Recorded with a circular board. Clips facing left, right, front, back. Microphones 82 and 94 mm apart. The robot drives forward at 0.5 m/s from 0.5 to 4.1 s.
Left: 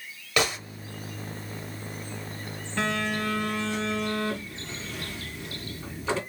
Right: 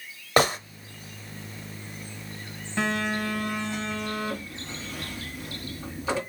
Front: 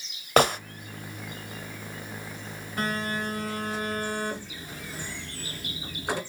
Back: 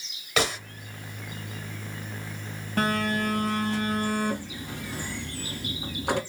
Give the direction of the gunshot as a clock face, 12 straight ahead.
1 o'clock.